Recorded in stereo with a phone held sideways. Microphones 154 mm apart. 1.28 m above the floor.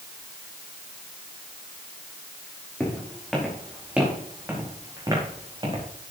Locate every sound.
2.8 s footsteps: 5° left (ahead or behind), 5.5 m; by 5.9 s 35° right (ahead or behind), 5 m